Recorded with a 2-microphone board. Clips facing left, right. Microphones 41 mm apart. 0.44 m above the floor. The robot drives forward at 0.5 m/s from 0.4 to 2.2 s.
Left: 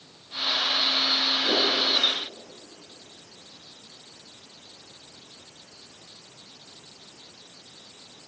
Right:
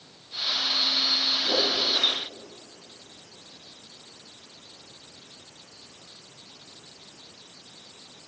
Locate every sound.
1.4 s a whoosh: 25° left (ahead or behind), 5 m